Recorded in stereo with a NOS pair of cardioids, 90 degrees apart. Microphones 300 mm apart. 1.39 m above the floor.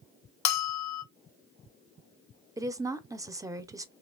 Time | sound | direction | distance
0.5 | a bell | 65° left | 0.6 m
2.6 | a woman speaking | 10° right | 0.6 m